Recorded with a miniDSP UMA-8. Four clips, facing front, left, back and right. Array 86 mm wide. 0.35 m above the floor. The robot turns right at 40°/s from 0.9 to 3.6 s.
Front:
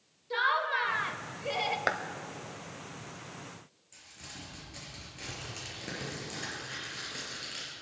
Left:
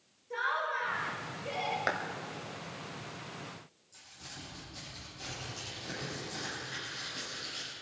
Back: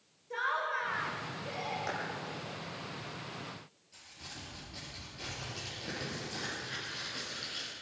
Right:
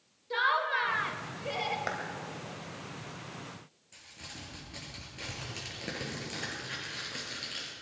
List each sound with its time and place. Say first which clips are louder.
0.3 s laughter: right 4 dB, front 5 dB; 50° right, 1.0 m; by 1.8 s 15° right, 1.0 m
1.9 s a clap: left 3 dB, front 9 dB; 15° left, 1.4 m
3.9 s crumpling: right 2 dB, front 1 dB; 70° right, 5.5 m